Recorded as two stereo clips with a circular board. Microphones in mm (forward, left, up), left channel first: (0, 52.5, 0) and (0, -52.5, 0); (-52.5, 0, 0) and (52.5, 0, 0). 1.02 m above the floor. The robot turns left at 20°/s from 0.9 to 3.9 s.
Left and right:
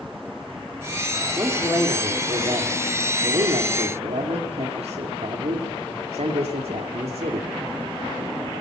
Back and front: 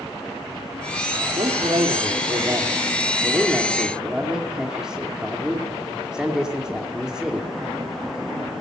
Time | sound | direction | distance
1.4 | a man speaking | 30° right | 2.5 m